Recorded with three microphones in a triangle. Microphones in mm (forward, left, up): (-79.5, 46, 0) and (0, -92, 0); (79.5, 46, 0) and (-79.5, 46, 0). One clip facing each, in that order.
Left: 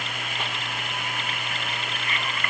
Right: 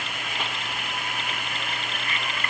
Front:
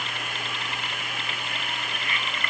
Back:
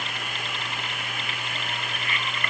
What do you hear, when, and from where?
Only background noise.